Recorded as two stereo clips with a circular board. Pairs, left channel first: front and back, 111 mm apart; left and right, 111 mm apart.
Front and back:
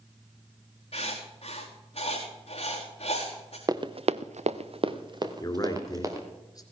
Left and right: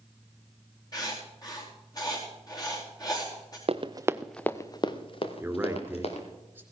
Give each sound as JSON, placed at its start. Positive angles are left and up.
{"t": 0.9, "sound": "writing", "azimuth_deg": 35, "distance_m": 4.0}
{"t": 3.7, "sound": "running footsteps", "azimuth_deg": -125, "distance_m": 1.0}
{"t": 5.4, "sound": "a man speaking", "azimuth_deg": -30, "distance_m": 2.0}